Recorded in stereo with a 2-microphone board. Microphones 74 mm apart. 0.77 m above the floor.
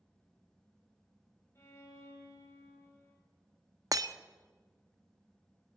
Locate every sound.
1.6 s a violin: 35° left (ahead or behind), 4 m
3.9 s breaking glass: 55° right (ahead or behind), 0.6 m